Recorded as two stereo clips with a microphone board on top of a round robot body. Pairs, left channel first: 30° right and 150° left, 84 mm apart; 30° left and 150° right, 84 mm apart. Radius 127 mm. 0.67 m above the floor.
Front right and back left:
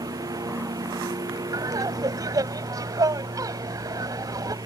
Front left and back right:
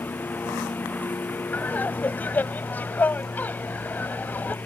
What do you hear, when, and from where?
0.0 s a lawn mower: 100° left
1.5 s laughter: 105° left